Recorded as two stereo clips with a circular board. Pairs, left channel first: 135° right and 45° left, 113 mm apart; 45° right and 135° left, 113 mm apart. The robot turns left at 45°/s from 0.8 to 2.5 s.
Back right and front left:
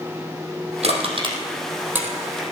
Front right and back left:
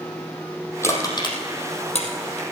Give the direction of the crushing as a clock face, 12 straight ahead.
11 o'clock.